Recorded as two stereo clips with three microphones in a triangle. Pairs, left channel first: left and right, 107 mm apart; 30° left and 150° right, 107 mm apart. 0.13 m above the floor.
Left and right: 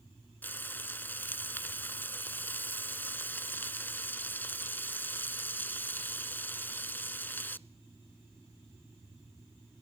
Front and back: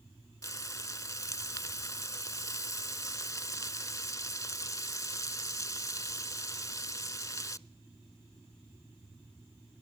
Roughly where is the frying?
Ahead left.